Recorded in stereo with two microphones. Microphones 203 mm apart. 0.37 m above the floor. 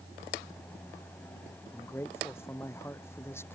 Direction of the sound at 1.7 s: 10° left (ahead or behind).